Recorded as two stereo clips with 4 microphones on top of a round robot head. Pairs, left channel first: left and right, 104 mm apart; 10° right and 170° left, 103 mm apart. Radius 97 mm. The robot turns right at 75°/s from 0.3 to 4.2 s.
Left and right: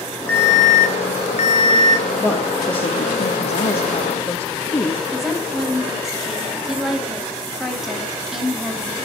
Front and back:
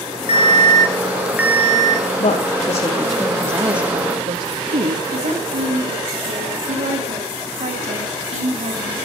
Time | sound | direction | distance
0.3 | an alarm | 15° left | 4 m
2.2 | a woman speaking | 5° left | 3 m
5.1 | a woman speaking | 175° right | 7 m